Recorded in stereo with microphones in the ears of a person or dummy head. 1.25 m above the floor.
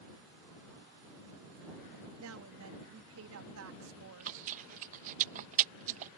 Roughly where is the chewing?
Right.